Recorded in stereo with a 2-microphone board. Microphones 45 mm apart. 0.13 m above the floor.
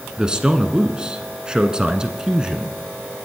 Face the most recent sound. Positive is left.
turn(degrees=-20)  # may be behind; listen again after turning